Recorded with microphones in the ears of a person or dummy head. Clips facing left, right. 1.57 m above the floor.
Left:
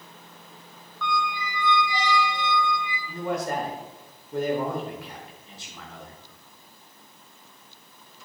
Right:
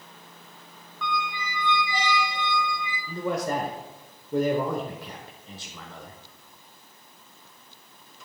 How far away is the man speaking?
About 1.1 m.